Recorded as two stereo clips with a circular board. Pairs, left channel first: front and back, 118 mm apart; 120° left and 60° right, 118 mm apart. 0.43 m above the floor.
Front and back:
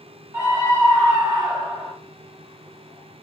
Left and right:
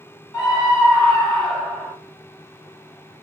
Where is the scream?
140° left, 1.2 m; by 1.9 s 150° right, 1.3 m.